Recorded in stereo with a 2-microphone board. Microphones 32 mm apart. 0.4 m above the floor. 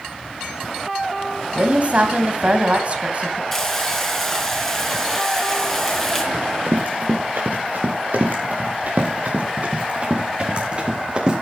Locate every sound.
1.6 s a woman speaking: 45° right (ahead or behind), 2.5 m
3.5 s frying: 10° left (ahead or behind), 4 m
6.3 s running footsteps: 80° right, 4 m; by 11.3 s 30° right (ahead or behind), 5.5 m